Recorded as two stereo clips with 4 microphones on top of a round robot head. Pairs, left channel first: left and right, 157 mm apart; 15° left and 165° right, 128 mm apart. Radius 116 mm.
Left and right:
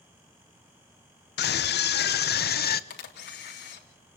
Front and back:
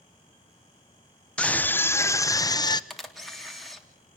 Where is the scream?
95° left, 1.5 m; by 2.8 s 70° left, 1.8 m.